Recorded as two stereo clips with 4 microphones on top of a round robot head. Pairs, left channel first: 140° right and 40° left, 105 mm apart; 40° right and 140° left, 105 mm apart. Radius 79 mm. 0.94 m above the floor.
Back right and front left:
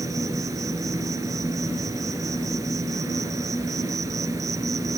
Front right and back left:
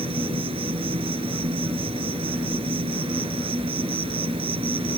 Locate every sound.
0.0 s an insect: 105° left